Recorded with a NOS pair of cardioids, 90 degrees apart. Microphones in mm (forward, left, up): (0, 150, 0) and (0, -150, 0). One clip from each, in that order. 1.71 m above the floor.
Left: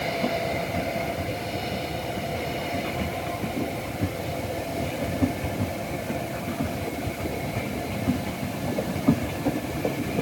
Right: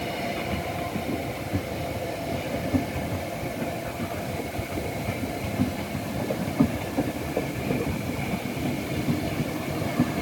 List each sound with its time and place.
Only background noise.